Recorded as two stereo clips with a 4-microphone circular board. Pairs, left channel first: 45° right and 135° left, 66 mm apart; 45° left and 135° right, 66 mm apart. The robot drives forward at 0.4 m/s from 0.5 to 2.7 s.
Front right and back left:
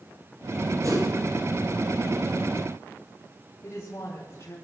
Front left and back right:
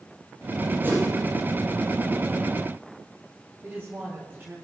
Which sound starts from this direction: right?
A woman speaking, at 3.6 s.